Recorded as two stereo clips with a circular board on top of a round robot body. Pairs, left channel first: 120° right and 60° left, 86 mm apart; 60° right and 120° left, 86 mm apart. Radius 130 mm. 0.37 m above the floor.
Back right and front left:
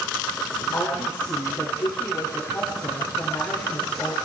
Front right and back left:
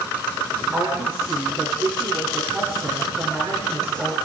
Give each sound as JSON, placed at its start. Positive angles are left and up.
{"t": 0.7, "sound": "a woman speaking", "azimuth_deg": 180, "distance_m": 8.0}